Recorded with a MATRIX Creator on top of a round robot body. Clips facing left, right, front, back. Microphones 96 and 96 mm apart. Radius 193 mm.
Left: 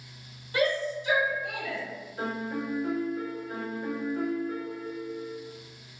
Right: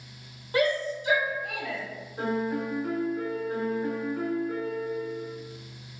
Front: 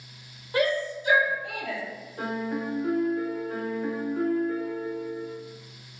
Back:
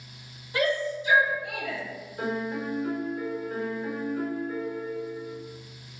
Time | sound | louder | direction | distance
0.5 | a shout | right 1 dB, front 1 dB | 45° right | 1.8 m
2.2 | a piano | right 4 dB, even | 25° right | 1.5 m